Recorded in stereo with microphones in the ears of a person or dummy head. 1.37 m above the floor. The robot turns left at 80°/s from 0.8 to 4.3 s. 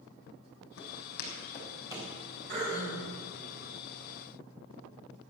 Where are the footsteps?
70° left (ahead or behind), 4 m; by 2.1 s 30° right (ahead or behind), 3.5 m.